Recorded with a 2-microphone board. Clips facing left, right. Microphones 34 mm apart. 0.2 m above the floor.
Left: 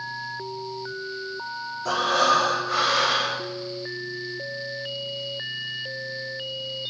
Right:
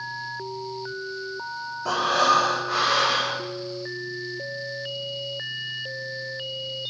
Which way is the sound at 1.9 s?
10° right (ahead or behind).